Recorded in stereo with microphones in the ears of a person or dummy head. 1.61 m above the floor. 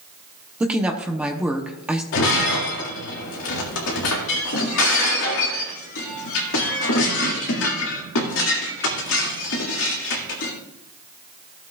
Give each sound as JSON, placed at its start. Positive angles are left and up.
{"t": 0.6, "sound": "a woman speaking", "side_deg": -10, "distance_m": 0.8}
{"t": 2.1, "sound": "breaking glass", "side_deg": 65, "distance_m": 2.0}